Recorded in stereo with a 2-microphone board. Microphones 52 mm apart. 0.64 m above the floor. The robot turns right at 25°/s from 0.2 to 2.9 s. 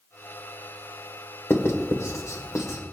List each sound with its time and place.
1.5 s writing: 60° left (ahead or behind), 1.6 m; by 2.8 s 75° left (ahead or behind), 1.6 m